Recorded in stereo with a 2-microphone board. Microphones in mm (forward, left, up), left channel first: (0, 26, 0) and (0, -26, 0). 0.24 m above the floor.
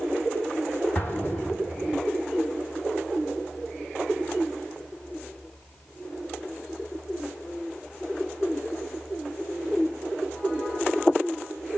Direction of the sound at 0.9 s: 35° left (ahead or behind).